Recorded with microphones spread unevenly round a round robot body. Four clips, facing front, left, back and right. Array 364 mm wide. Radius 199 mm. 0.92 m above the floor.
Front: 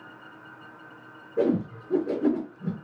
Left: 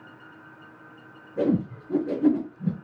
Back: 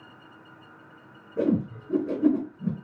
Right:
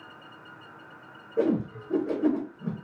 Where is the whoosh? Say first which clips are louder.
Left 1 dB, front 1 dB; 140° left, 2.0 m.